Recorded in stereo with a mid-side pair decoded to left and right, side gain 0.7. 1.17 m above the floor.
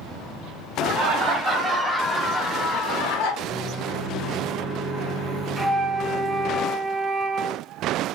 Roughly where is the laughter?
Ahead right.